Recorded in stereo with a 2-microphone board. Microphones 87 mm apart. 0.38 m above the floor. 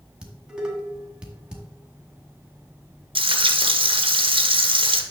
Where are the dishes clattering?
10° right (ahead or behind), 1.7 m.